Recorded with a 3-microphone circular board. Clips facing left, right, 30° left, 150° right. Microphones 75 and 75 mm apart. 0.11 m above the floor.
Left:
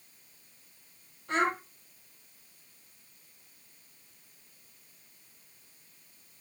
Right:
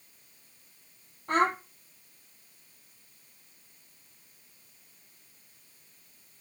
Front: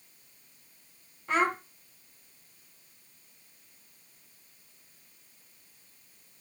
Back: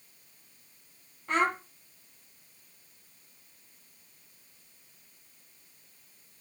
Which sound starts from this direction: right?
A child speaking, at 1.3 s.